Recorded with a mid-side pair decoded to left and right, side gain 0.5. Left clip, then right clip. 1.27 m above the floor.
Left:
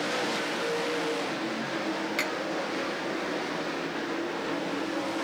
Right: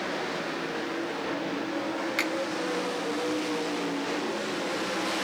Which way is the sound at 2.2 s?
10° right.